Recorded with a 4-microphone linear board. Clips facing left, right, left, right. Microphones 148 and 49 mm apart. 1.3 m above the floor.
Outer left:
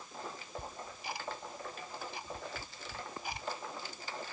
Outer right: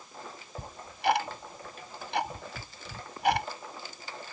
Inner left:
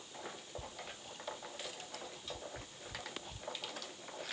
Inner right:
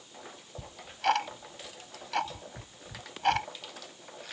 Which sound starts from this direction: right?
Ticking, at 0.6 s.